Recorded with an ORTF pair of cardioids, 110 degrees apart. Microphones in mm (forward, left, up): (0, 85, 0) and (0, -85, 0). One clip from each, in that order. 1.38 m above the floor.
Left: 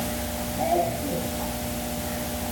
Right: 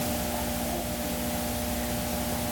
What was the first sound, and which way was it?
Only background noise.